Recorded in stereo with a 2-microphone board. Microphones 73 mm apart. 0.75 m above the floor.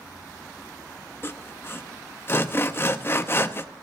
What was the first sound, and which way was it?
Sawing, 30° left (ahead or behind).